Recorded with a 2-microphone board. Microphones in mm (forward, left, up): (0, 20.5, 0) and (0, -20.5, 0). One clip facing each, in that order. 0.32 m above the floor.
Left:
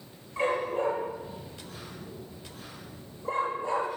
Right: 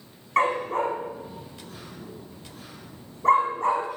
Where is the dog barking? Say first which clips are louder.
Right 5 dB; 75° right (ahead or behind), 8.5 m.